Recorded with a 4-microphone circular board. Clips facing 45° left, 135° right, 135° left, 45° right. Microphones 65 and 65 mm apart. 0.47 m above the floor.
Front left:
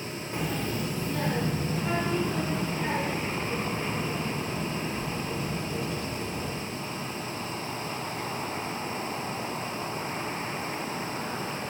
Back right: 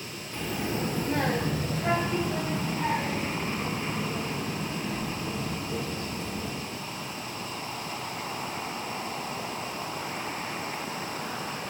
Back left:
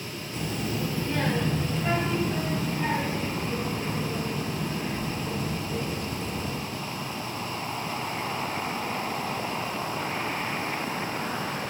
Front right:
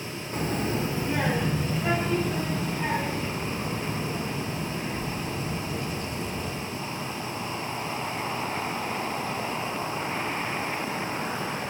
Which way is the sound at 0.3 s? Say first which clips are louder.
Even, front right 3 dB; 20° right.